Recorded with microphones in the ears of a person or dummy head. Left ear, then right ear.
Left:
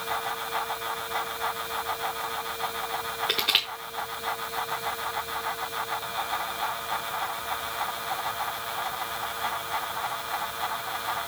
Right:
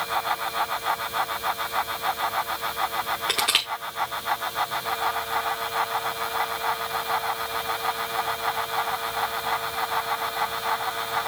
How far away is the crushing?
About 0.8 m.